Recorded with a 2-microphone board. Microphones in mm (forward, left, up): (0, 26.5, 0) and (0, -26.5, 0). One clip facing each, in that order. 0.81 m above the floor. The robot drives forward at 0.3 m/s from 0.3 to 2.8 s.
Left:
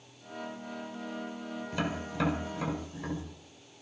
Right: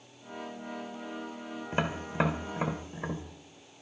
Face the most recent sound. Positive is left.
turn(degrees=-30)  # may be behind; listen again after turning